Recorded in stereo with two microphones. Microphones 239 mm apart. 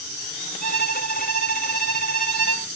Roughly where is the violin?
Left.